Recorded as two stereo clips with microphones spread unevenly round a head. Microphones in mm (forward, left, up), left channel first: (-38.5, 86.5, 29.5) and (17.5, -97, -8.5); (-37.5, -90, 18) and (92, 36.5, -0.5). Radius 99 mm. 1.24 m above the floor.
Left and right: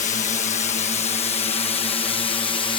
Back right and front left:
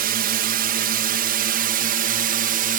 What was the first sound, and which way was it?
A drone, 55° left.